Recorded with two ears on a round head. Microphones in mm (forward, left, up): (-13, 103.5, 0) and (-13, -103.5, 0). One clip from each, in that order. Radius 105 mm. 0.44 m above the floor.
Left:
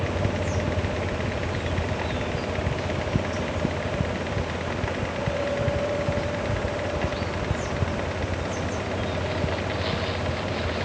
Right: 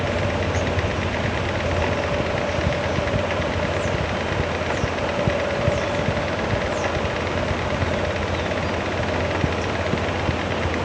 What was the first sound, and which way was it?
Only background noise.